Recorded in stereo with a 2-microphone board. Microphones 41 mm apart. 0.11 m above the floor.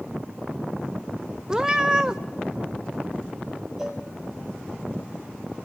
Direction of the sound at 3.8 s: 10° right (ahead or behind).